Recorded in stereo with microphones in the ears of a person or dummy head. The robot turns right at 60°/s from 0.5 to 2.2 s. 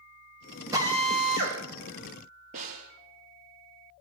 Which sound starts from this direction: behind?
A drill, at 0.7 s.